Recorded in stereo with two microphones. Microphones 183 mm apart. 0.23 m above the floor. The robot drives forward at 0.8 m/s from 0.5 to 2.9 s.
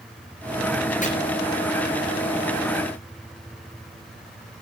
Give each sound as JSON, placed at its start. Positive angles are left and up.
{"t": 1.0, "sound": "chopping", "side_deg": 40, "distance_m": 5.0}